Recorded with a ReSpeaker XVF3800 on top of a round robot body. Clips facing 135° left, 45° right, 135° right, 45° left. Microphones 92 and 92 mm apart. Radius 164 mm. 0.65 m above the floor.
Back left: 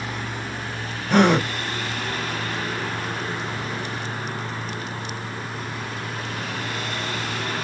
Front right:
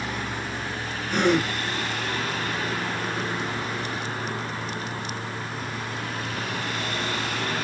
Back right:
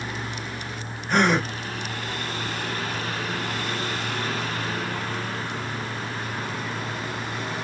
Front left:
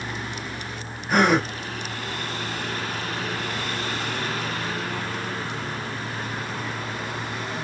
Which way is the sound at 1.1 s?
130° left.